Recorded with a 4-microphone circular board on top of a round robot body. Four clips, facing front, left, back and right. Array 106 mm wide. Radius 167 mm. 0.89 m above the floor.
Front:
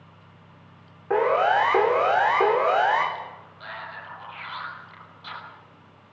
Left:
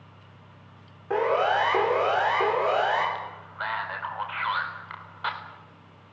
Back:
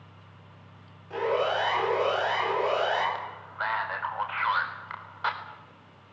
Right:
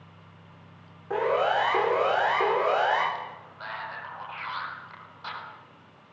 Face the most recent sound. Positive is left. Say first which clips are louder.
# left 3 dB, back 3 dB
turn(degrees=155)